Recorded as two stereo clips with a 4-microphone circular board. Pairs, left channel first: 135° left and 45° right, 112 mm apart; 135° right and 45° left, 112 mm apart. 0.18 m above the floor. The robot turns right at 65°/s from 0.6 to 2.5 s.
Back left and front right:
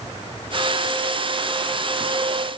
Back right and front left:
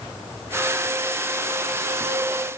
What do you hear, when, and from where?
Only background noise.